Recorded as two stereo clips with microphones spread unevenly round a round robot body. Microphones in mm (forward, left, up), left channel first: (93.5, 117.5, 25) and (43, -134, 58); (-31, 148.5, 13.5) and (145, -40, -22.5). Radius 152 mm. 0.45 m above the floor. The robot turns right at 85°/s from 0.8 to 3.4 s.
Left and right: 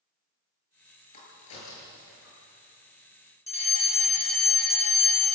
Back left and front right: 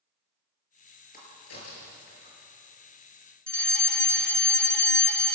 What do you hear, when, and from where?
1.1 s a crack: 75° left, 6.5 m; by 2.3 s 175° left, 6.5 m
3.5 s a fire alarm: 40° left, 2.5 m